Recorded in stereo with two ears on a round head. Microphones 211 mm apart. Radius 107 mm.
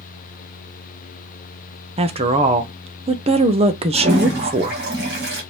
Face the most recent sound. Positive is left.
turn(degrees=-40)  # may be behind; listen again after turning